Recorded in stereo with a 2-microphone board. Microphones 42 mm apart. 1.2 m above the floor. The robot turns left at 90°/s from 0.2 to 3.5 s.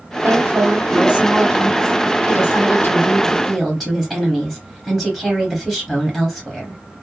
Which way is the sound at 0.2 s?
75° right.